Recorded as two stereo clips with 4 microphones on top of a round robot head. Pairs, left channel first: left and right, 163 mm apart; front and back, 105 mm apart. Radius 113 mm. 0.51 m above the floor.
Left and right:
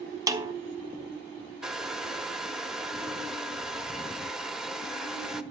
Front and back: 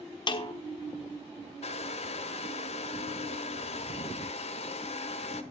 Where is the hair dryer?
5° right, 1.2 m.